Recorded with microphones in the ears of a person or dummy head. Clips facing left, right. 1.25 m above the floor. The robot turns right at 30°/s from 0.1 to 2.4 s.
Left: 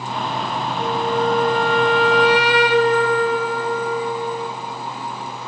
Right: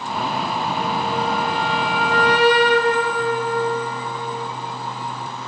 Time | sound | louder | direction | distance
0.8 | a flute | left 6 dB | 25° left | 0.6 m